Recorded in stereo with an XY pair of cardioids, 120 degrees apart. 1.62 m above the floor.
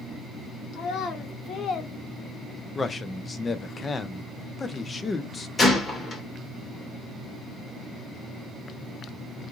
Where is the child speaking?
70° left, 1.1 m; by 1.9 s 55° left, 0.5 m.